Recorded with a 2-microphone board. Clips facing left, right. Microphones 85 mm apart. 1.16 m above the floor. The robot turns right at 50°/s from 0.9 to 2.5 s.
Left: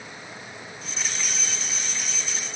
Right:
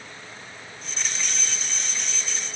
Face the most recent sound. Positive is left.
No sound to turn to.